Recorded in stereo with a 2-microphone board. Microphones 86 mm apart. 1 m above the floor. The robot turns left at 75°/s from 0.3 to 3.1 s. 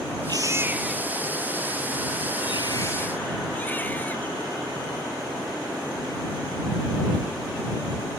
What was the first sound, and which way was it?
A baby crying, 130° right.